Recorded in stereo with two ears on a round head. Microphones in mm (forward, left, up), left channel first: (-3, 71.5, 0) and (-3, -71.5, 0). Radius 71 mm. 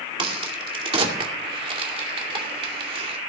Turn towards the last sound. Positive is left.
turn(degrees=-35)  # may be behind; listen again after turning